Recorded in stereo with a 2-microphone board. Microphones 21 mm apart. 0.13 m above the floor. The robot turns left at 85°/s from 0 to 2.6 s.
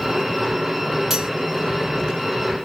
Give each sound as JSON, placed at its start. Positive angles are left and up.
{"t": 1.1, "sound": "cutlery clinking", "side_deg": -10, "distance_m": 2.0}